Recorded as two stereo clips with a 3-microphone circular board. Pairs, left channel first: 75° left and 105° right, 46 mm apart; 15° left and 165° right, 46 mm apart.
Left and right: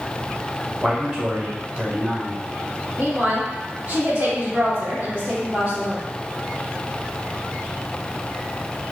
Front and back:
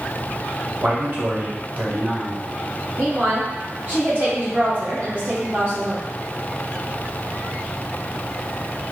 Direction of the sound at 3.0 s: 125° right.